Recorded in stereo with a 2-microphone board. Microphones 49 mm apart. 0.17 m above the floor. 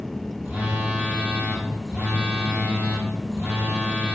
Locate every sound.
0.4 s a phone buzzing: 30° right (ahead or behind), 1.0 m